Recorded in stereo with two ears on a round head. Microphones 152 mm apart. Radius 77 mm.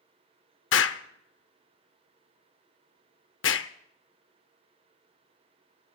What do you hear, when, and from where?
0.7 s an explosion: 80° left, 0.7 m